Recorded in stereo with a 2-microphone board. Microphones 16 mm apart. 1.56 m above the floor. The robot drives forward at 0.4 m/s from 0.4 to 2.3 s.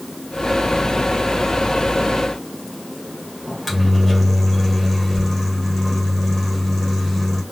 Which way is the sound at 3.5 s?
5° left (ahead or behind).